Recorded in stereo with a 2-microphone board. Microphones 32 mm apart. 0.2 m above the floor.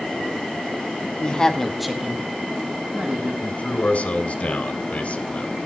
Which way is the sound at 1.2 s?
30° left (ahead or behind).